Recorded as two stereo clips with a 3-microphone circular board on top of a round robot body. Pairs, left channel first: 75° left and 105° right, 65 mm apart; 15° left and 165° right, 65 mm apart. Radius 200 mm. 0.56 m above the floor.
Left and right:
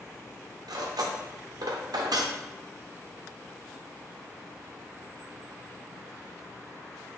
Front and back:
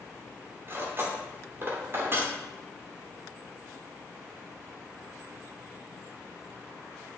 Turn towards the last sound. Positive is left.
turn(degrees=-110)